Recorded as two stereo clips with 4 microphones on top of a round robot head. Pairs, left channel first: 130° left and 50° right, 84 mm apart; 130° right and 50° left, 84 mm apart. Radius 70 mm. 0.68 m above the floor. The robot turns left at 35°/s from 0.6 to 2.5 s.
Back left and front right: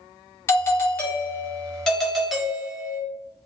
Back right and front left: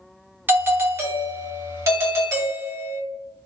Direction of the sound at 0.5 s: 95° left.